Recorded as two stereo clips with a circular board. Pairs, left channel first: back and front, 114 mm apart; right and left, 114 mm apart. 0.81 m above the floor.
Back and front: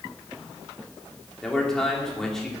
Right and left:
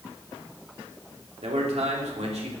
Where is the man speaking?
95° left, 2.5 m.